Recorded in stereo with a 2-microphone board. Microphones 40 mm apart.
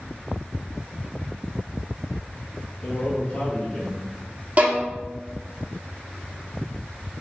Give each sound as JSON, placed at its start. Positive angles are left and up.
{"t": 2.8, "sound": "a man speaking", "side_deg": 30, "distance_m": 2.0}
{"t": 4.6, "sound": "a violin", "side_deg": -40, "distance_m": 1.0}